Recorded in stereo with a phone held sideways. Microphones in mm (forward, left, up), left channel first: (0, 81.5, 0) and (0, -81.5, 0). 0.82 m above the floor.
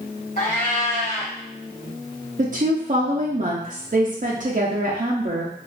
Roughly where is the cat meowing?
Left.